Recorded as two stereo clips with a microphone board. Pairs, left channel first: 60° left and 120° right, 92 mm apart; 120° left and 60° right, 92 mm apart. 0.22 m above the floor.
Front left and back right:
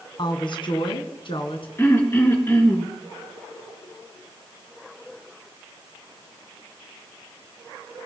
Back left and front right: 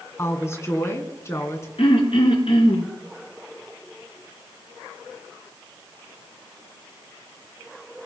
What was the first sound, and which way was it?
A woman speaking, 65° left.